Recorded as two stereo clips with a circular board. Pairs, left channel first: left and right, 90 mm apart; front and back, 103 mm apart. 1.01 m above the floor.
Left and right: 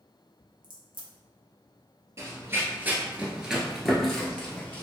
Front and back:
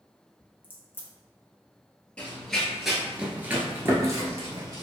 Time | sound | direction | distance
0.6 | a crack | 70° right | 0.9 m
2.2 | running footsteps | 70° right | 1.1 m